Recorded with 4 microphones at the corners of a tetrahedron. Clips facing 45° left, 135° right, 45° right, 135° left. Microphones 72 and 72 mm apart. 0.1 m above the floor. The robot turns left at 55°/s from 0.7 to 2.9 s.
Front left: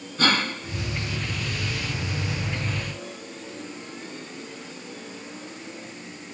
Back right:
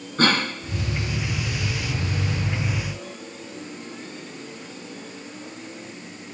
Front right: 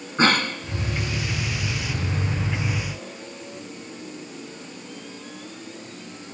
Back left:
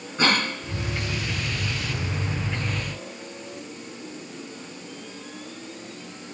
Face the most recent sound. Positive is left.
turn(degrees=150)